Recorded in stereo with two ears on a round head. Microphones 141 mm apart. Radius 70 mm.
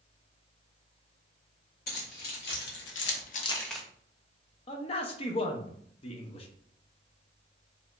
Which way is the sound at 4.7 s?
35° left (ahead or behind).